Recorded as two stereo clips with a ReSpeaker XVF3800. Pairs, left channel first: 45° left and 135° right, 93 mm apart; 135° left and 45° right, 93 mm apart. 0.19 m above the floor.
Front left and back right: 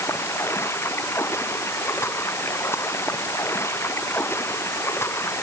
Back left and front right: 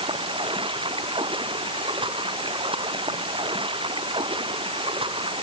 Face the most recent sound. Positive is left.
turn(degrees=-20)